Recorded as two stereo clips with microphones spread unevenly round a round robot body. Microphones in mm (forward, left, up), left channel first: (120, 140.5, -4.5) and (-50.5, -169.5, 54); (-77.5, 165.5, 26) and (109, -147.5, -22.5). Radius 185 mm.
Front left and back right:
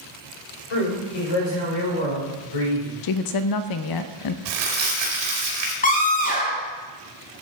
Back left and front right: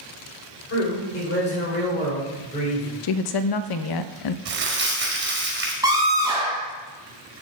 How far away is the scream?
About 1.1 m.